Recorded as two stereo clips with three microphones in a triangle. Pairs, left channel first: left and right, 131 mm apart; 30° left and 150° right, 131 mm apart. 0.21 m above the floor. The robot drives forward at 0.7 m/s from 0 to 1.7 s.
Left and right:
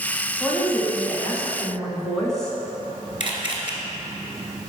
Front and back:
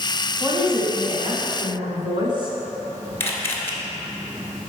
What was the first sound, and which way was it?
A woman speaking, 170° left.